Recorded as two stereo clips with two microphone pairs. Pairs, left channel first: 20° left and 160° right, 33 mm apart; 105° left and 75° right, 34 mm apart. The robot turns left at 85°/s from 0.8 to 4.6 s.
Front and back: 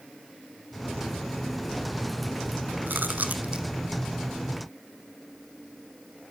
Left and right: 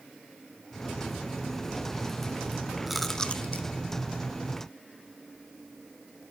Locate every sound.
2.9 s chewing: 160° right, 0.8 m; by 3.7 s 135° left, 0.8 m